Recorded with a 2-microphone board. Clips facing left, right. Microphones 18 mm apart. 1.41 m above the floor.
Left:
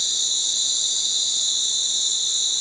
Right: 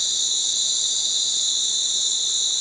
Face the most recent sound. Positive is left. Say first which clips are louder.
# even
turn(degrees=60)  # may be behind; listen again after turning